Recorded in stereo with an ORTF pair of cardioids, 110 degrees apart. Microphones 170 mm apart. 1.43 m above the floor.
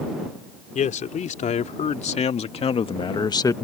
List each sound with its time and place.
0.8 s a man speaking: 50° left; by 3.6 s 15° left